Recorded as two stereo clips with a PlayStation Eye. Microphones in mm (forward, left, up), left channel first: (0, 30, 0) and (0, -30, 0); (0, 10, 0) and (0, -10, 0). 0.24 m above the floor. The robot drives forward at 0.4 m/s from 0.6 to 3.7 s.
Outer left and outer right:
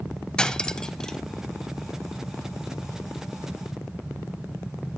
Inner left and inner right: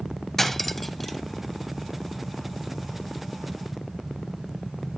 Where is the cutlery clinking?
10° left (ahead or behind), 0.6 m.